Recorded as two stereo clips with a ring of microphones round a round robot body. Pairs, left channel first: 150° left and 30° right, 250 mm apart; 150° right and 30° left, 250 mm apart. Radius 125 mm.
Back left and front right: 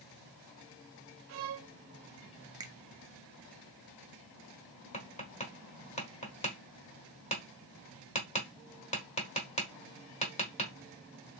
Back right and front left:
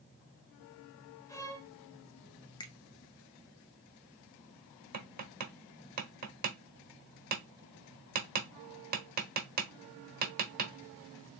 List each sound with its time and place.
1.3 s a violin: 70° right, 0.6 m
2.6 s a finger snap: 90° right, 0.5 m
4.9 s tapping: 85° left, 1.2 m